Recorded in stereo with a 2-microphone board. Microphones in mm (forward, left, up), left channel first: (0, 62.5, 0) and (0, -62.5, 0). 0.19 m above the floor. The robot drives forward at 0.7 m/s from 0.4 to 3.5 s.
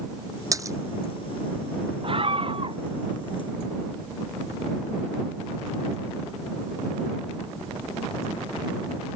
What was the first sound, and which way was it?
A splash, 25° right (ahead or behind).